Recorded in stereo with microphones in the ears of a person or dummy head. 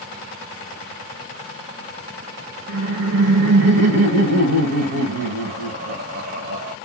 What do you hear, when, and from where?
2.7 s laughter: 65° right (ahead or behind), 0.9 m